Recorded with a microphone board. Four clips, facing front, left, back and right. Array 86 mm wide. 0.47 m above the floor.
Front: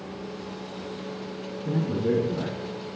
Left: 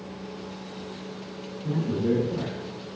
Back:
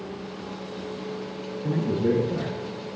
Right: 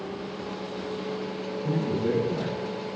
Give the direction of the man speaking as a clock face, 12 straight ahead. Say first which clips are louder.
Left 1 dB, back 2 dB; 5 o'clock.